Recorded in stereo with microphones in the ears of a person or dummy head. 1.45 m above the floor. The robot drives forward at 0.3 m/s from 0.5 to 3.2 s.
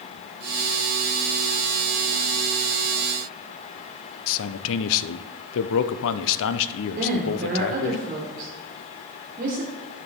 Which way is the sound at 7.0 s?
45° right (ahead or behind).